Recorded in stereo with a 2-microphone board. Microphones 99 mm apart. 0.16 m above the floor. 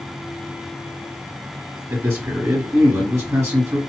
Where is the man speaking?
30° right (ahead or behind), 1.6 m.